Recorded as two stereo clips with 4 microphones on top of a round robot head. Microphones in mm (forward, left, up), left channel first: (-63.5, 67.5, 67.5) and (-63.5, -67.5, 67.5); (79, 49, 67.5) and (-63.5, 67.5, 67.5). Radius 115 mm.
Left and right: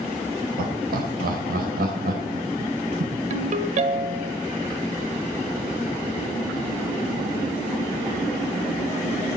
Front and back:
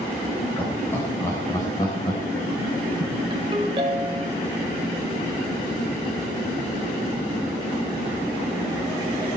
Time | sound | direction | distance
0.6 | laughter | 90° right | 3.5 m
3.3 | a ringtone | 120° right | 1.4 m